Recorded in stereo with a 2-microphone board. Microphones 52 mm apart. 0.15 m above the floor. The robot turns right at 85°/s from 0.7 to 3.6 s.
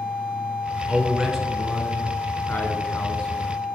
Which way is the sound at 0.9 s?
20° right (ahead or behind).